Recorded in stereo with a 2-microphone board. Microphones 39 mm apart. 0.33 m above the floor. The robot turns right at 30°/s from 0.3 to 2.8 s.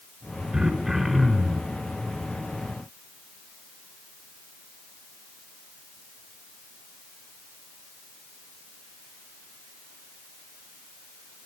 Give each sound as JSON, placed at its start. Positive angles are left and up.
{"t": 0.5, "sound": "throat clearing", "azimuth_deg": -25, "distance_m": 4.5}